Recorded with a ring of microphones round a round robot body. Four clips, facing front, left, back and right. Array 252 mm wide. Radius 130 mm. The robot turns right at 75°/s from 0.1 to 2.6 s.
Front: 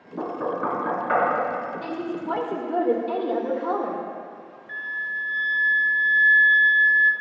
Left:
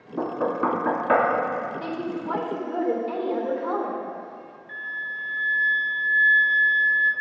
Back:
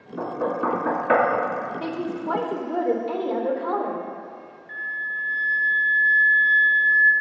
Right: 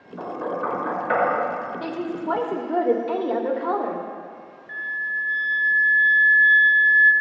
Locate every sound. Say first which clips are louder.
0.2 s knocking: left 3 dB, back 1 dB; 50° left, 3 m; by 1.2 s 130° left, 3 m
1.8 s a woman speaking: right 2 dB, back 1 dB; 165° right, 1.6 m; by 4.0 s 105° right, 1.6 m
4.7 s a flute: right 5 dB, back 1 dB; 45° left, 0.9 m